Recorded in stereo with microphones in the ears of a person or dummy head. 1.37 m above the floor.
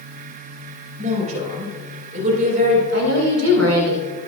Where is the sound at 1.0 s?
50° right (ahead or behind), 4.5 m.